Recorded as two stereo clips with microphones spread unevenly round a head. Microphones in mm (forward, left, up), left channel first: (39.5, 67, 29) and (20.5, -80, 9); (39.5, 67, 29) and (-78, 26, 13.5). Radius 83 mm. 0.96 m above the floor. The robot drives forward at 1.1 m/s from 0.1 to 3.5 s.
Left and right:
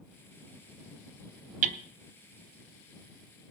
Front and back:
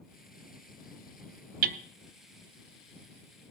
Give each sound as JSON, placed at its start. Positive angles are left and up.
{"t": 1.6, "sound": "hammering", "azimuth_deg": -145, "distance_m": 0.5}